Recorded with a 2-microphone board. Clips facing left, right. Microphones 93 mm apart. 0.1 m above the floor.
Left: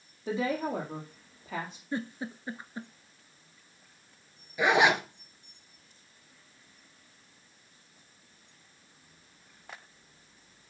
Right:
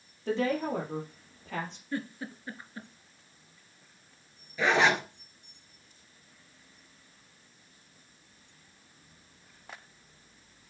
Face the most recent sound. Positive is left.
turn(degrees=15)  # may be behind; listen again after turning